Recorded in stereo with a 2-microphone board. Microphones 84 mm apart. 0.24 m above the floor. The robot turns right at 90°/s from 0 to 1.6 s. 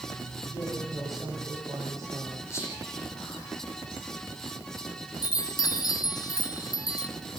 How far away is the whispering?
About 9.5 m.